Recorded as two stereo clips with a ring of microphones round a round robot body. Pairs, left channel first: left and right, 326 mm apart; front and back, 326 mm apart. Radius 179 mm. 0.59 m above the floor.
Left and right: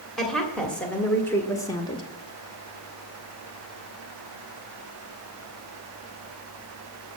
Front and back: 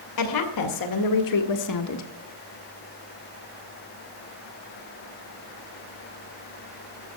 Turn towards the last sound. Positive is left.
turn(degrees=20)